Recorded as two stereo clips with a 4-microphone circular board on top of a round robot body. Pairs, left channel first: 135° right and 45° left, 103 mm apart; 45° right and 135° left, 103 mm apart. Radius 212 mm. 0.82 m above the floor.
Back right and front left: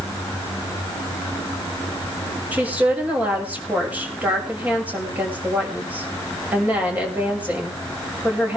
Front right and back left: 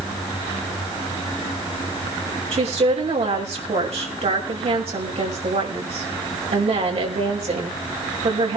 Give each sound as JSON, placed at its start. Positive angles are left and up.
{"t": 2.5, "sound": "a woman speaking", "azimuth_deg": 120, "distance_m": 6.0}